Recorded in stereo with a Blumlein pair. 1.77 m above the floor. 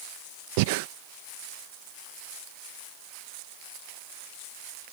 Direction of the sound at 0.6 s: 50° right.